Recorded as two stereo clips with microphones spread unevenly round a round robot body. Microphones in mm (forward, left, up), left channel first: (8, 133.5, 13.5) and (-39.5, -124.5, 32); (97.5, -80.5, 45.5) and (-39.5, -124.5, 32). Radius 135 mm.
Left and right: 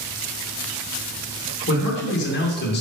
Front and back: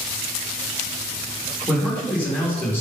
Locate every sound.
1.7 s a man speaking: 110° left, 2 m; by 2.8 s 95° left, 1.8 m